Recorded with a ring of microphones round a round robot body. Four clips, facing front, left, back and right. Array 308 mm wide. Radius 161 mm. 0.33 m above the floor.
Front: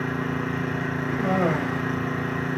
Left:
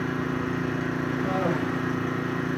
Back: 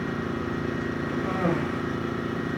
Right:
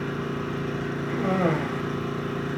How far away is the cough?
About 2.5 m.